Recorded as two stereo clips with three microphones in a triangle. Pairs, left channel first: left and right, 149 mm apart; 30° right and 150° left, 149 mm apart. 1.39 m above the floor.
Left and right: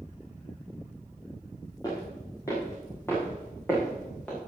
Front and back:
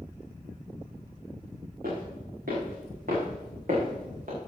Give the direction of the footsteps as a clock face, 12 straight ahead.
7 o'clock.